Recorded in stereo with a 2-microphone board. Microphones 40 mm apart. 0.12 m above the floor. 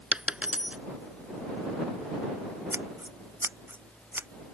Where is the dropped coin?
30° right (ahead or behind).